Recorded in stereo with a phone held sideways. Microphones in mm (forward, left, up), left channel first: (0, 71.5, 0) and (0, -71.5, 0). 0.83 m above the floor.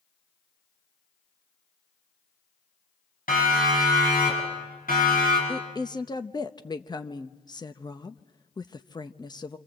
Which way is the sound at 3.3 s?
80° left.